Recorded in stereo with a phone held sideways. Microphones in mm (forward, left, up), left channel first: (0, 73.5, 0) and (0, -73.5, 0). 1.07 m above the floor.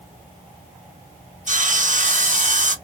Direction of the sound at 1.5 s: 60° right (ahead or behind).